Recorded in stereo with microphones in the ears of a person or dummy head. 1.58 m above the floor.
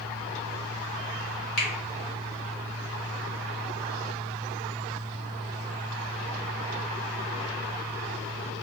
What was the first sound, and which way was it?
A finger snap, 60° left (ahead or behind).